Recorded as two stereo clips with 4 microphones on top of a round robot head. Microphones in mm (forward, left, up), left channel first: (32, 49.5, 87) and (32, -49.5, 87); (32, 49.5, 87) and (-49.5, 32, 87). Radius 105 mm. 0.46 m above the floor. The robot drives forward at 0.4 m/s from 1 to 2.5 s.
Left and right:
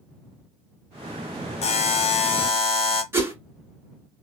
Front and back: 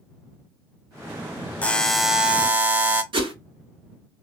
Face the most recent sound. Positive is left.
turn(degrees=-160)